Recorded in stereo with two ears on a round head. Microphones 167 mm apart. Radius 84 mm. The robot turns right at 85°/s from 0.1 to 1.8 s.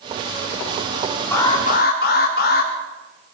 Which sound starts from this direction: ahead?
An alarm, at 1.3 s.